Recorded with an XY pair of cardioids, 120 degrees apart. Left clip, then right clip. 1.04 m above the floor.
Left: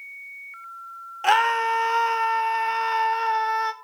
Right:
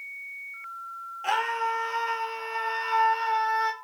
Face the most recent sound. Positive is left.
turn(degrees=15)